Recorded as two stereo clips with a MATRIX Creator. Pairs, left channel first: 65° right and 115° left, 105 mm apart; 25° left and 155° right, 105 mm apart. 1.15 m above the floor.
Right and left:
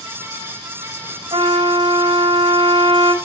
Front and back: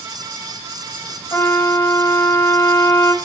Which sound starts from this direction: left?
A trumpet, at 1.3 s.